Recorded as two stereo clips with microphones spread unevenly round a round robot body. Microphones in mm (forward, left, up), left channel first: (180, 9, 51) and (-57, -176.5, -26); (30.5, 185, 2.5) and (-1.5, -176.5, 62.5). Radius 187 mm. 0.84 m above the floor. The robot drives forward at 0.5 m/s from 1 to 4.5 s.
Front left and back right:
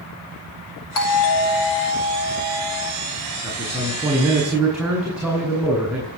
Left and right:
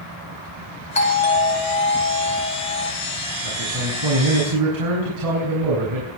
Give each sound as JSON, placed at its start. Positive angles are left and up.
{"t": 0.9, "sound": "a doorbell", "azimuth_deg": 15, "distance_m": 8.0}
{"t": 3.4, "sound": "a man speaking", "azimuth_deg": -50, "distance_m": 7.5}